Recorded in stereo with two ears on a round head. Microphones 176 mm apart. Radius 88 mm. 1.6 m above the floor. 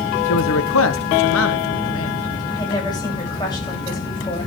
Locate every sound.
0.3 s a man speaking: 75° left (ahead or behind), 1.2 m; by 2.2 s 80° left, 2.5 m
2.5 s a woman speaking: 20° left (ahead or behind), 8.5 m